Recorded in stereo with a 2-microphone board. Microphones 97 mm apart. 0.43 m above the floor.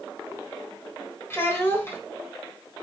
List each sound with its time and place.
1.3 s a child speaking: 25° left (ahead or behind), 1.3 m